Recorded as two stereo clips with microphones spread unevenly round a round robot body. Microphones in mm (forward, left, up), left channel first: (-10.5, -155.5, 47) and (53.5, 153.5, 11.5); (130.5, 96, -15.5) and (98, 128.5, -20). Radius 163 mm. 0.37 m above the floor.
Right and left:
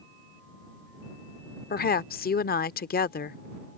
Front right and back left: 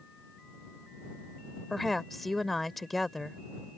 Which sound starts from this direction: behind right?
A woman speaking, at 1.7 s.